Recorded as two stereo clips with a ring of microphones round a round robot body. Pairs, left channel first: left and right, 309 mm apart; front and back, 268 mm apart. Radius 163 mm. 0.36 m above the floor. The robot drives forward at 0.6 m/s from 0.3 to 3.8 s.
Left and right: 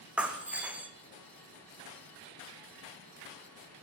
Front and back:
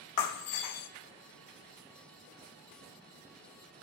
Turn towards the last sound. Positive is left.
turn(degrees=-175)